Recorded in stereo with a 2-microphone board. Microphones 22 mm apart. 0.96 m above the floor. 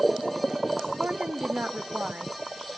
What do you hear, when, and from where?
1.0 s a woman speaking: 70° right (ahead or behind), 1.2 m